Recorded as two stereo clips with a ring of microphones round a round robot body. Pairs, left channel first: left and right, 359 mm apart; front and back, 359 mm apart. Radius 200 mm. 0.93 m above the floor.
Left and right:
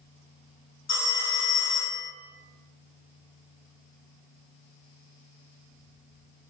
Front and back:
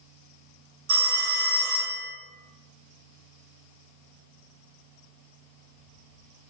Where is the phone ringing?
150° left, 1.3 m.